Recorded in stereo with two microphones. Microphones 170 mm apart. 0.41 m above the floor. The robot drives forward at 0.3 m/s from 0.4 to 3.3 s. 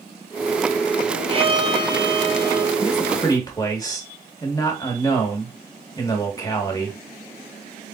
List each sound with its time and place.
1.3 s a violin: 35° right (ahead or behind), 1.2 m; by 2.7 s 25° right (ahead or behind), 1.6 m
2.8 s a man speaking: 25° left (ahead or behind), 1.2 m; by 7.0 s 20° left (ahead or behind), 1.3 m